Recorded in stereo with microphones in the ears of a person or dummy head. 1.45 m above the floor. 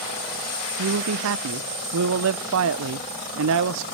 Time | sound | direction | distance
0.8 | a man speaking | 75° right (ahead or behind) | 0.5 m